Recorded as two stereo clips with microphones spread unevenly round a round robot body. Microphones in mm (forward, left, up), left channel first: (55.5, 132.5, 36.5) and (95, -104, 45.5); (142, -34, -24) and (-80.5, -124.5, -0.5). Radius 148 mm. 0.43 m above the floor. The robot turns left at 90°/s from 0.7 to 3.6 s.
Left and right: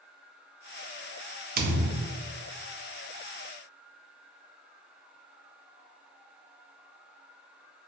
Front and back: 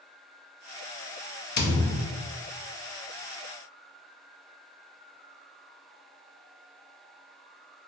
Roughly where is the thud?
Ahead right.